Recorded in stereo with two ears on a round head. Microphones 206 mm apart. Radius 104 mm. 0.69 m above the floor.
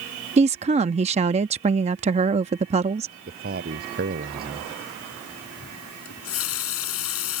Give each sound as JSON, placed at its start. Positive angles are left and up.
{"t": 0.4, "sound": "a woman speaking", "side_deg": -25}
{"t": 3.3, "sound": "a man speaking", "side_deg": -40}
{"t": 6.0, "sound": "a running tap", "side_deg": 65}